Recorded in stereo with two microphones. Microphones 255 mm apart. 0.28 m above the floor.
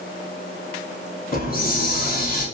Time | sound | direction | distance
1.3 | a hiss | 35° left (ahead or behind) | 0.6 m